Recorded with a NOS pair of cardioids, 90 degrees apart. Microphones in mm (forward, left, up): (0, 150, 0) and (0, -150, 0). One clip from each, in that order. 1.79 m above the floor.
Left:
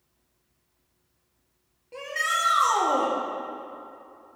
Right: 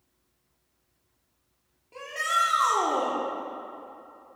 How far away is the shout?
About 1.8 m.